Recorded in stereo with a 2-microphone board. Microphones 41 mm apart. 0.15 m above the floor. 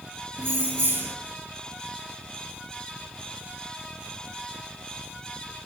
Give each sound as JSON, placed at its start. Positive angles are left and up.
{"t": 0.4, "sound": "keys jangling", "side_deg": -65, "distance_m": 1.6}